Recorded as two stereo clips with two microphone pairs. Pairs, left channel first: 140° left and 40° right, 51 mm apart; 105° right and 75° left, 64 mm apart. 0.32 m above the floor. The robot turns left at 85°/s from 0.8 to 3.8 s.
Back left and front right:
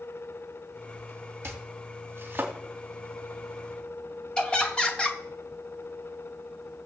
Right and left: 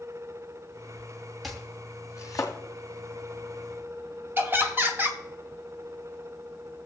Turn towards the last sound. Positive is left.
turn(degrees=85)